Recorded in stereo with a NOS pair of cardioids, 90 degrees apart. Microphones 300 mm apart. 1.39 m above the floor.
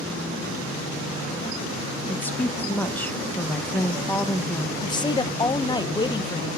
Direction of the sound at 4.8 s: 15° left.